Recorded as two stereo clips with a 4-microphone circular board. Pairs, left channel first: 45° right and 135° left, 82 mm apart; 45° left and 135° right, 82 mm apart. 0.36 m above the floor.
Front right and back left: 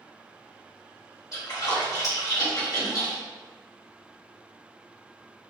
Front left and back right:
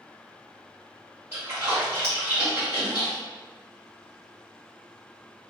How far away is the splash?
About 2.0 m.